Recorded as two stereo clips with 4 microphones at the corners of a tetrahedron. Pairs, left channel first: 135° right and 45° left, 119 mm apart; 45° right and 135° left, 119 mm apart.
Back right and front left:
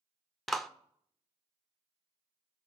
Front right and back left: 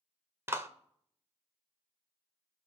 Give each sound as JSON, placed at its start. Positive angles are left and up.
{"t": 0.5, "sound": "a clap", "azimuth_deg": 140, "distance_m": 0.6}